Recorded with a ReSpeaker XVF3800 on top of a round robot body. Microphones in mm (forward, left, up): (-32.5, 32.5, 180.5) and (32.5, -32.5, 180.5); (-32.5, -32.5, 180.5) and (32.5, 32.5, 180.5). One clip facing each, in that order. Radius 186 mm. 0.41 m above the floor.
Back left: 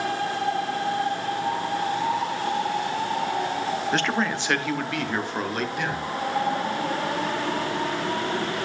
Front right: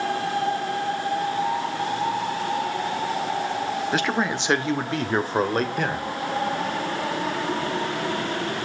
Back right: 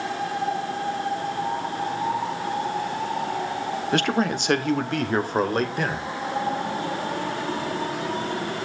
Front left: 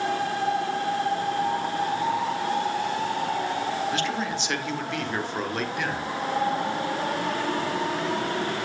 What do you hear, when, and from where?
3.9 s a man speaking: 130° right, 1.4 m; by 6.1 s 85° right, 2.5 m